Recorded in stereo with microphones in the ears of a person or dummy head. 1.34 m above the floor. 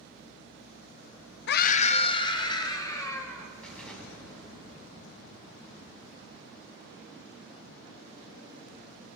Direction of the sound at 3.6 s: 5° left (ahead or behind).